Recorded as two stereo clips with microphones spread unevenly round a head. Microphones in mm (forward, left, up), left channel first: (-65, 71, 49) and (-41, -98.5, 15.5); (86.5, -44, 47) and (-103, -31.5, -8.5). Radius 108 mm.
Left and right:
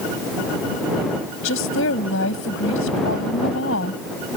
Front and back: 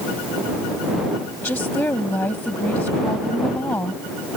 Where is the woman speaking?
75° left.